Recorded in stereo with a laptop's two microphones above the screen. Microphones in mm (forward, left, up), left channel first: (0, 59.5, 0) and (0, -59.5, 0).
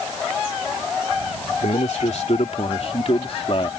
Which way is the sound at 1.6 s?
70° left (ahead or behind).